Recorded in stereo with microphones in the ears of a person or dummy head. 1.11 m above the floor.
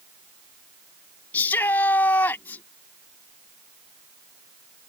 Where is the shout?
10° left (ahead or behind).